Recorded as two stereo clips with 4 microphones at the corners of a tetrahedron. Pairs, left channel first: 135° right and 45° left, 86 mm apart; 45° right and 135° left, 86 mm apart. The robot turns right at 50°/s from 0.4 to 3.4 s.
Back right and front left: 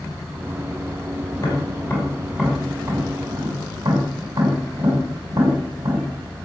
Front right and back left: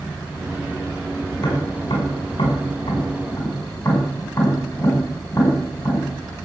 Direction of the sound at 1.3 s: 90° right.